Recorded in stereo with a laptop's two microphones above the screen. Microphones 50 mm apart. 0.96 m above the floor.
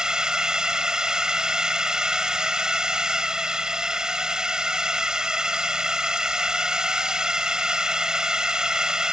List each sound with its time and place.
0.0 s a drone: 10° right (ahead or behind)